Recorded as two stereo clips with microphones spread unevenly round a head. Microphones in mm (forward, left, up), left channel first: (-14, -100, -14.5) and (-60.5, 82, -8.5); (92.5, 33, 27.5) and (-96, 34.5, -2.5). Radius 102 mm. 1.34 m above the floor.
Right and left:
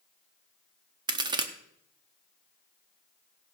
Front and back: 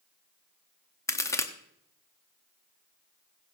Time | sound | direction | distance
1.1 | a crack | 55° left | 0.9 m